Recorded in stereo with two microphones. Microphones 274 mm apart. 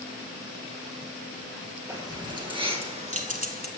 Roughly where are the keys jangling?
Centre.